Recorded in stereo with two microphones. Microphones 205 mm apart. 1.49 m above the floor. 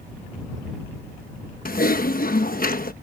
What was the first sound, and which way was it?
Typing on a keyboard, 45° left (ahead or behind).